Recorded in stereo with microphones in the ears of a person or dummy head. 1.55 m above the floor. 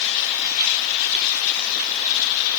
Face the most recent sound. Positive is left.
No sound to turn to.